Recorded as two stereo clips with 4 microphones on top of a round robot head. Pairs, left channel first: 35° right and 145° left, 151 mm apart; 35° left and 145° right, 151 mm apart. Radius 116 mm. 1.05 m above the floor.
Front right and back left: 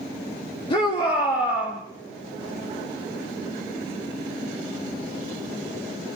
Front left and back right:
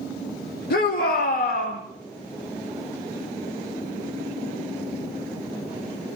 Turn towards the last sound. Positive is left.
turn(degrees=25)